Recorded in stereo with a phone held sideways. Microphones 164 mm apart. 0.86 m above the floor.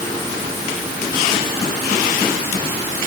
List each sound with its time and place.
Only background noise.